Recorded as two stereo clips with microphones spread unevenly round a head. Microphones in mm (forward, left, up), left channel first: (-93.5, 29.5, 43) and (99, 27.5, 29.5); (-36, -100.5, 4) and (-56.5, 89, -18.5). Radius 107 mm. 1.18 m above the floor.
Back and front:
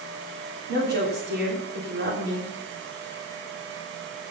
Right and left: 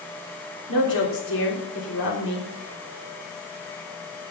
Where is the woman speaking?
45° right, 3 m.